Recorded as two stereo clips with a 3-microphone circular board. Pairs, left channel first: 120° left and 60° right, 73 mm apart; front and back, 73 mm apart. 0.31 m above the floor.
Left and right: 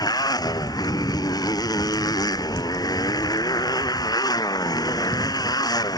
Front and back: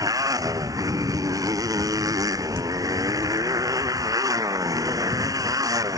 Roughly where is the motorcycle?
Behind left.